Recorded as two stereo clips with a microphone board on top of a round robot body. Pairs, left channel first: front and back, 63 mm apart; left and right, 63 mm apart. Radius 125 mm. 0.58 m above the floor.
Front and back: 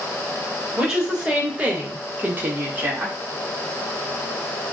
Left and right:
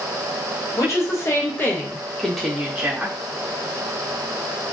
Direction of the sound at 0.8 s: 105° left.